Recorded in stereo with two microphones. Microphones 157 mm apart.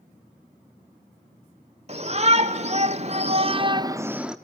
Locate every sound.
1.9 s a shout: 45° right (ahead or behind), 1.8 m; by 4.4 s 5° right (ahead or behind), 0.8 m